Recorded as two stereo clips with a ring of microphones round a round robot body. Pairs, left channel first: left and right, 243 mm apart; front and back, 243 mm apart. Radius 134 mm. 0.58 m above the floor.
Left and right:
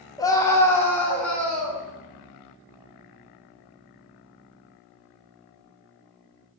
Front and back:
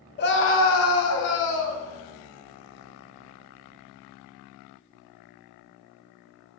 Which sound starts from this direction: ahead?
A scream, at 0.2 s.